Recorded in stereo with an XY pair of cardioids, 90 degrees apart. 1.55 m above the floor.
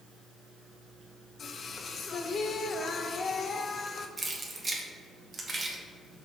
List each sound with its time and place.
1.4 s singing: 55° left, 0.6 m
4.2 s keys jangling: 30° right, 1.3 m